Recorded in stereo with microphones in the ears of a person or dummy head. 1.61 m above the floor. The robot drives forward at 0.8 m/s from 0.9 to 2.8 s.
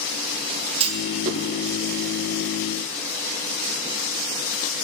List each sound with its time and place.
0.8 s a clunk: 30° right (ahead or behind), 1.5 m; by 1.4 s 40° right (ahead or behind), 1.2 m